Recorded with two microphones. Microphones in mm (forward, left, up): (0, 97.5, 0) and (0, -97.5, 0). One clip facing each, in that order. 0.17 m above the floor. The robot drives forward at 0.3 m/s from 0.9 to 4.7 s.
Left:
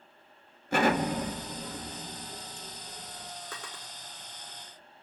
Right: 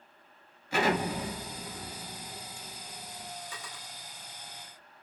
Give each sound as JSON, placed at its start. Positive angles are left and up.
{"t": 0.7, "sound": "an explosion", "side_deg": 55, "distance_m": 1.7}
{"t": 3.5, "sound": "a drawer", "side_deg": 60, "distance_m": 2.5}